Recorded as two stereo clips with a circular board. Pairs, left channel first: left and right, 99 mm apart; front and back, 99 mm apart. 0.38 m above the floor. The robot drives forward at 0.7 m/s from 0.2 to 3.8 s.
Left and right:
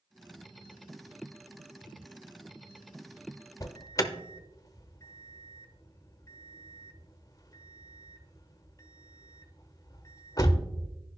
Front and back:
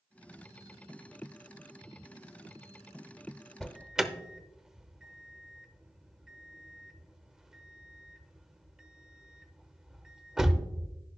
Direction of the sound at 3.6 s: 80° left.